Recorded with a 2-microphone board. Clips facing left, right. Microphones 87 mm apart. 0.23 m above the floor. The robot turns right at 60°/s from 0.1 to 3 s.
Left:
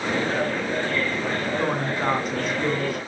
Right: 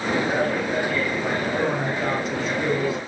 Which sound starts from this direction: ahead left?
A woman speaking, at 1.6 s.